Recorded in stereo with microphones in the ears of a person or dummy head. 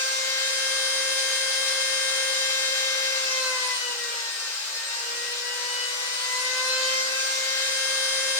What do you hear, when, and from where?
0.0 s a machine running: 15° left (ahead or behind), 1.0 m